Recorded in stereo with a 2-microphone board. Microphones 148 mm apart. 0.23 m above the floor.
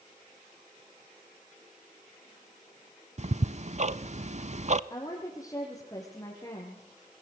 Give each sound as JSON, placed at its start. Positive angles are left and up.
{"t": 3.2, "sound": "ticking", "side_deg": -50, "distance_m": 0.7}
{"t": 4.9, "sound": "a woman speaking", "side_deg": 20, "distance_m": 5.0}